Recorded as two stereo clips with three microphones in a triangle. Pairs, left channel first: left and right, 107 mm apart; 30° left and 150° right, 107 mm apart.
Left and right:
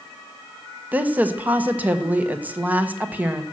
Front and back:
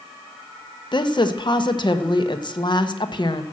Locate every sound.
0.9 s a woman speaking: 15° right, 1.2 m